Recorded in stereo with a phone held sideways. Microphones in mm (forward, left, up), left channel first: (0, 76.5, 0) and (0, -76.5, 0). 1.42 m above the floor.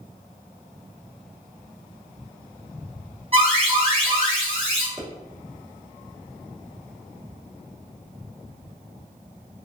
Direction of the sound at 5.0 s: Centre (ahead or behind).